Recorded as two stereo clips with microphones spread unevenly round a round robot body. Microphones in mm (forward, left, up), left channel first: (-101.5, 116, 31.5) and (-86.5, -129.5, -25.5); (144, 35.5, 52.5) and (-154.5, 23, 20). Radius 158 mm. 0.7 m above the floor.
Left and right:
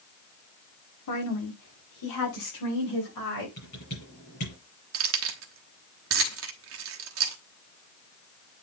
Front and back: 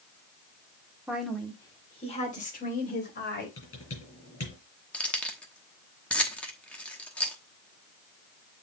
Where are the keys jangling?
85° right, 1.0 m.